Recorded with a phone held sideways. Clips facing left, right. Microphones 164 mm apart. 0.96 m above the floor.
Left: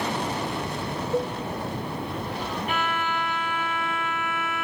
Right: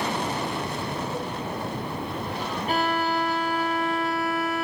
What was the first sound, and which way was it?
A cowbell, 40° left (ahead or behind).